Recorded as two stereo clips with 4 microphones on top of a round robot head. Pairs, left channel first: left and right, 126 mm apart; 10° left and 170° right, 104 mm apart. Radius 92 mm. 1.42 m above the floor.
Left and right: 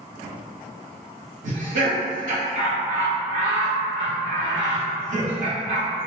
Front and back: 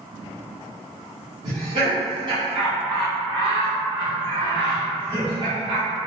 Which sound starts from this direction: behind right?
Laughter, at 1.4 s.